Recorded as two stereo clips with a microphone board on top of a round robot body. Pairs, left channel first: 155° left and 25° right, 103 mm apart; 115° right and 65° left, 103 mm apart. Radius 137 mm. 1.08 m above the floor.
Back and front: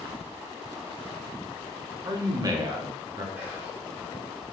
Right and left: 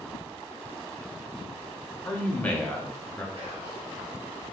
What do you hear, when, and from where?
2.0 s a man speaking: 45° right, 0.7 m
3.4 s whispering: 50° left, 1.0 m